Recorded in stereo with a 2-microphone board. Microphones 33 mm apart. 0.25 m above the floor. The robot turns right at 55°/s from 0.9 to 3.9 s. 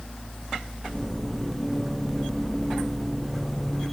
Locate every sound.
Only background noise.